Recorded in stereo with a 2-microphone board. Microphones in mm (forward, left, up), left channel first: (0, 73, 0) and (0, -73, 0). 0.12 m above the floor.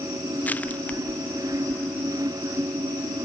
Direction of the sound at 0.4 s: 10° left (ahead or behind).